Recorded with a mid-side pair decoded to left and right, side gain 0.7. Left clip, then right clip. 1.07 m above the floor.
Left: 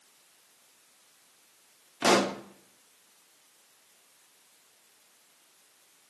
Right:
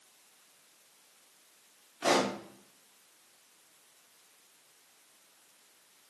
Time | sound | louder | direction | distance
2.0 | a pop | left 4 dB | 45° left | 0.8 m